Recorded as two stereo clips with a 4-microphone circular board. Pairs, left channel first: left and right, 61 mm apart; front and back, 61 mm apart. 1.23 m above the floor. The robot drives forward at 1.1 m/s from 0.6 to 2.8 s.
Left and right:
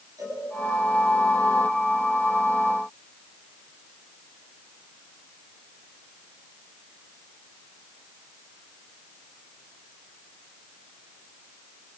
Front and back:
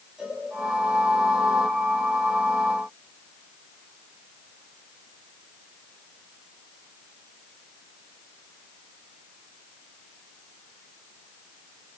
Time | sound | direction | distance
0.2 | a cowbell | 100° right | 8 m